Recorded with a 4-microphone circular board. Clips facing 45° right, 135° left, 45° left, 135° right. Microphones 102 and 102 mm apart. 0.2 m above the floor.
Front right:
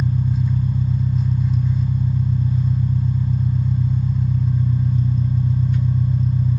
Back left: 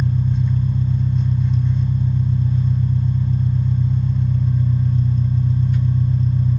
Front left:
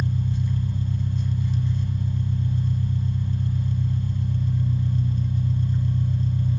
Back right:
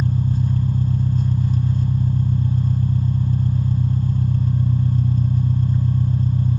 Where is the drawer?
No drawer in this recording.